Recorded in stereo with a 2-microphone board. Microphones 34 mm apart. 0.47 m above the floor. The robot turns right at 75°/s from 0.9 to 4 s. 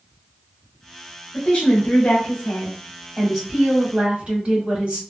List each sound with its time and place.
1.3 s a woman speaking: 25° left, 1.5 m; by 5.0 s 135° right, 1.5 m